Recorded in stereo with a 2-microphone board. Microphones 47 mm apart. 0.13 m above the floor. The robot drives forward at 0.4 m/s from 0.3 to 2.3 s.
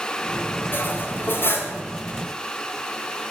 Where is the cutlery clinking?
45° left (ahead or behind), 1.9 m; by 1.7 s 55° left (ahead or behind), 1.7 m.